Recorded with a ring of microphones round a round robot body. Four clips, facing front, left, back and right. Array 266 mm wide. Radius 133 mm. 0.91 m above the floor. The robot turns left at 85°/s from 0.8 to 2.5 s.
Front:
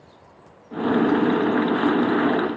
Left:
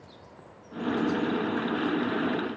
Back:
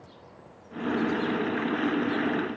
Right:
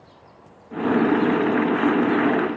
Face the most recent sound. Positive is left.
No sound to turn to.